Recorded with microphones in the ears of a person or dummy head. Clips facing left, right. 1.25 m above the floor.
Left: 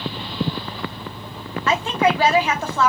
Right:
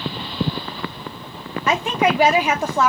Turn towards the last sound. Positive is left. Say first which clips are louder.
# even
turn(degrees=-15)  # may be behind; listen again after turning